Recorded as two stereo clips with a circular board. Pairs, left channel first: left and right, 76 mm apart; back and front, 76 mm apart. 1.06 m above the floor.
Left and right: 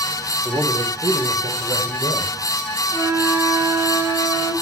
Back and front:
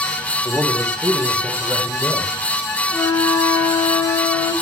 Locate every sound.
0.5 s a man speaking: 55° right, 4 m; by 2.4 s 80° right, 5 m
2.9 s a flute: 140° right, 4 m